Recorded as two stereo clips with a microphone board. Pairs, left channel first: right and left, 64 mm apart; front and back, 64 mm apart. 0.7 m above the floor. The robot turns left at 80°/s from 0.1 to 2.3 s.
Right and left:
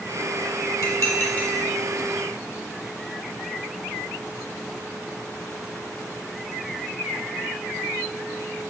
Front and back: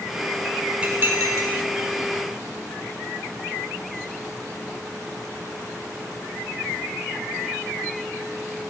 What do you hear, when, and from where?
0.8 s dishes clattering: 110° right, 1.7 m; by 1.5 s 165° right, 1.7 m